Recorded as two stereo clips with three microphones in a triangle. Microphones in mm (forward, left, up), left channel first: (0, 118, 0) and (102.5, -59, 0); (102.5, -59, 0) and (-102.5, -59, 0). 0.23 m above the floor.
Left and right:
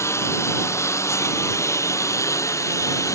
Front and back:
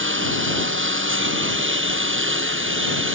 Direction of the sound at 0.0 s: 165° right.